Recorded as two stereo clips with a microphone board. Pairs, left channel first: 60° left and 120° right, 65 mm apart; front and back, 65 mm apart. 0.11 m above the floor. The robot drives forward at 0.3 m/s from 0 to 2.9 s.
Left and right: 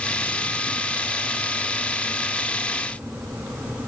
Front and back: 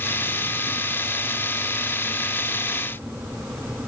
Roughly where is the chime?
I don't hear a chime.